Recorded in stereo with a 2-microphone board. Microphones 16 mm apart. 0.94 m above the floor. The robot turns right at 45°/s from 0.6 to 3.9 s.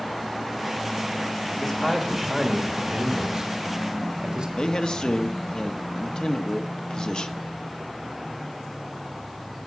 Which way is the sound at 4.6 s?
60° left (ahead or behind).